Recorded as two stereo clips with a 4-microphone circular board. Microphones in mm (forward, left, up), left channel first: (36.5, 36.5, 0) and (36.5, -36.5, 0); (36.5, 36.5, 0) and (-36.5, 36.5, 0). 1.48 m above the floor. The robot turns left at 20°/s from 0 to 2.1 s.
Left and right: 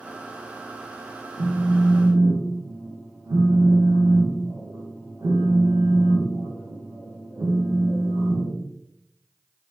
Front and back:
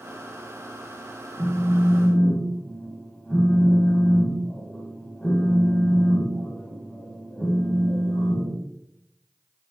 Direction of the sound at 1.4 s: 65° right.